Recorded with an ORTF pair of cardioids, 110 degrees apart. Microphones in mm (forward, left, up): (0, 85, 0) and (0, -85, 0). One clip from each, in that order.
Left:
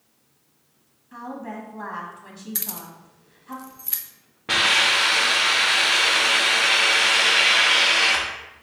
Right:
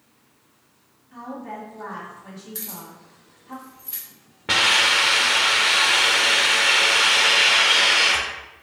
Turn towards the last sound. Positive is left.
turn(degrees=-20)